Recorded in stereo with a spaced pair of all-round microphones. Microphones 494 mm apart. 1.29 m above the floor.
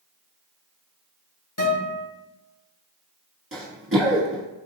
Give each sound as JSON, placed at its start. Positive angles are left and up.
{"t": 1.6, "sound": "a guitar", "side_deg": 40, "distance_m": 1.5}
{"t": 3.5, "sound": "running footsteps", "side_deg": -25, "distance_m": 1.4}